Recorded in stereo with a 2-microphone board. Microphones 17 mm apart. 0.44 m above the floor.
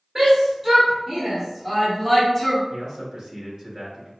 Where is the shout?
30° right (ahead or behind), 1.9 m; by 2.6 s 20° left (ahead or behind), 1.2 m.